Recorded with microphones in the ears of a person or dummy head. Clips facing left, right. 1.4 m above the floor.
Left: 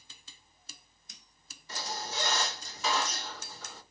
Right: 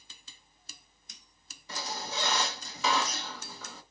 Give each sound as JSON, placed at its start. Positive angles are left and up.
{"t": 1.7, "sound": "a squeak", "side_deg": -75, "distance_m": 1.1}